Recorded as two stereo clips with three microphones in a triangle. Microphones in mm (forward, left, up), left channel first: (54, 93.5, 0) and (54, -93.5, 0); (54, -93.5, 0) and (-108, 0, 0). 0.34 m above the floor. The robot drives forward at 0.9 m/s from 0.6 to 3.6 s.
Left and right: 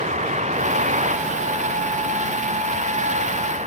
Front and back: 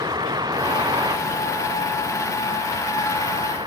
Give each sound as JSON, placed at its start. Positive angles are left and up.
{"t": 0.0, "sound": "a vehicle", "azimuth_deg": -140}